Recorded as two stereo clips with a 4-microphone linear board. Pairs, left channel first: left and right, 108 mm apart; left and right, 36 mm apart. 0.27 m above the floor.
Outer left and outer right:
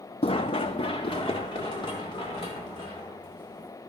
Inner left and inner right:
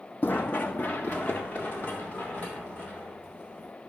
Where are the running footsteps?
65° left (ahead or behind), 0.5 m; by 3.7 s 45° left (ahead or behind), 5 m.